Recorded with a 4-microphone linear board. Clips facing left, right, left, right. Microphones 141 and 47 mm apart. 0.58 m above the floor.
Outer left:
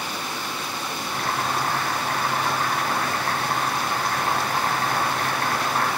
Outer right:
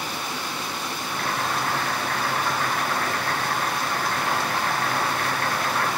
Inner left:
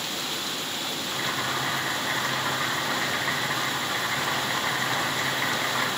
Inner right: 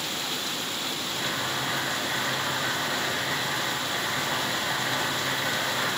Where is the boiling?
35° left (ahead or behind), 3 m.